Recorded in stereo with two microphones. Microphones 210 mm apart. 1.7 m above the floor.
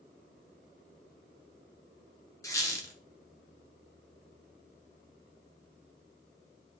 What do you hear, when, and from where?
2.4 s a squeak: 15° left (ahead or behind), 0.7 m